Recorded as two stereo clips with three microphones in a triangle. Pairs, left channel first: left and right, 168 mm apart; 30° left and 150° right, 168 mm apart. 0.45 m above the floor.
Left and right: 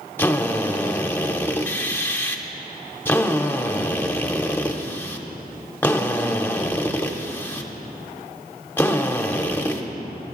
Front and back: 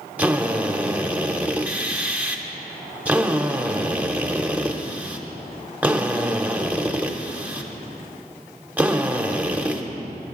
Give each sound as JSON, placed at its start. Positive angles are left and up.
{"t": 0.2, "sound": "a drill", "azimuth_deg": 145, "distance_m": 0.9}